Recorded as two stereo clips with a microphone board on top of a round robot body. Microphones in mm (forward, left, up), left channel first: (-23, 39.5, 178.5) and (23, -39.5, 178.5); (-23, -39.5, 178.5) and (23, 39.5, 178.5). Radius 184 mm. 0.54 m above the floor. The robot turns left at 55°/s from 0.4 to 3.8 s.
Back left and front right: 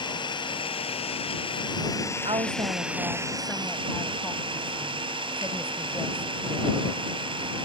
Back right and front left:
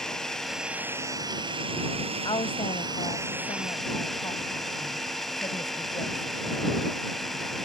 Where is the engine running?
155° left; by 7.7 s 30° right.